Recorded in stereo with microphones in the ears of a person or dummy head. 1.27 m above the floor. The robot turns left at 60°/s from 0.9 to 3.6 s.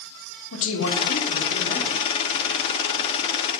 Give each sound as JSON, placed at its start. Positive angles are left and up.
{"t": 0.5, "sound": "a man speaking", "azimuth_deg": 105, "distance_m": 1.6}